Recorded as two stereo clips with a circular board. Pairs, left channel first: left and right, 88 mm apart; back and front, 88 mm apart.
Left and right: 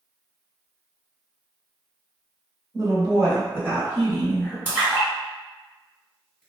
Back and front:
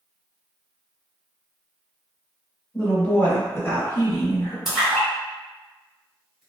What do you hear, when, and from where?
2.7 s a woman speaking: 100° right, 1.4 m; by 4.5 s 155° left, 1.3 m
4.7 s a splash: 85° right, 1.6 m